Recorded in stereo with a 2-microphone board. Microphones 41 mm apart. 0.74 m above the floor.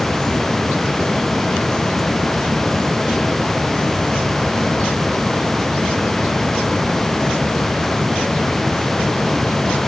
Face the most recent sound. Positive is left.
No sound to turn to.